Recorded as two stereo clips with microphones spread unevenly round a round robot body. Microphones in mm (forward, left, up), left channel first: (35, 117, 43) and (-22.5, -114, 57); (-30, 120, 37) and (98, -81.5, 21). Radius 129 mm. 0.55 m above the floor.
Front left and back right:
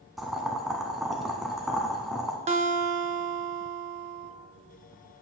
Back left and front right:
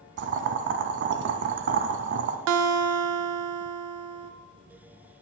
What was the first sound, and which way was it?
Boiling, 15° right.